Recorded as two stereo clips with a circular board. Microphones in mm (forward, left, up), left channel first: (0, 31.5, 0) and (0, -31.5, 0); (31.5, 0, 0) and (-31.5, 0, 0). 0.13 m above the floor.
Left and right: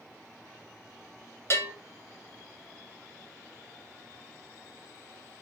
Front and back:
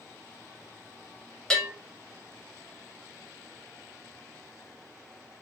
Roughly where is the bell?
Left.